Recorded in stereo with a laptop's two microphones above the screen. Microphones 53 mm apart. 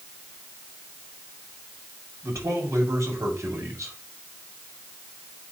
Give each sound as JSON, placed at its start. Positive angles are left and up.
{"t": 2.2, "sound": "a man speaking", "side_deg": -70, "distance_m": 4.5}